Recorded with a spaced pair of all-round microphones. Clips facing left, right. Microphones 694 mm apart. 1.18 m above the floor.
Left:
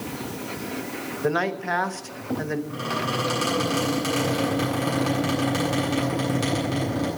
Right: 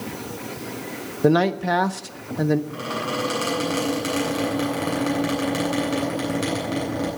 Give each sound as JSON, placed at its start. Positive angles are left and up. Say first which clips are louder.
{"t": 1.2, "sound": "a man speaking", "louder": "right 7 dB", "side_deg": -60, "distance_m": 1.0}
{"t": 2.7, "sound": "a squeak", "louder": "right 1 dB", "side_deg": 25, "distance_m": 9.0}